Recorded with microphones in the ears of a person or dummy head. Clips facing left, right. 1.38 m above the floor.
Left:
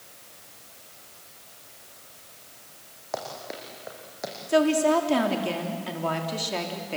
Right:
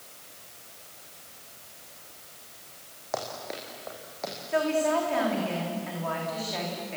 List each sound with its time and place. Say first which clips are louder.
3.1 s running footsteps: even; 5° left (ahead or behind), 5 m; by 4.3 s 15° left (ahead or behind), 4.5 m
4.5 s a woman speaking: left 5 dB; 55° left (ahead or behind), 3 m